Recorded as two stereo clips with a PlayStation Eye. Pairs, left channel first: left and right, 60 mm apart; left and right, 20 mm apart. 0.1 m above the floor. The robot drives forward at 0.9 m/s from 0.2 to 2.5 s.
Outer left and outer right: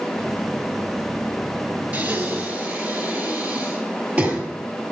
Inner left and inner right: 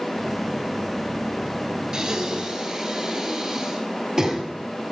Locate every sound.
1.9 s breathing: 25° right (ahead or behind), 1.4 m; by 4.4 s 20° right (ahead or behind), 1.7 m